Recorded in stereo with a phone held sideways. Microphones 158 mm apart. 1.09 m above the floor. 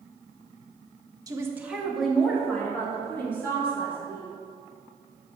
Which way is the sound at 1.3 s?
25° right (ahead or behind).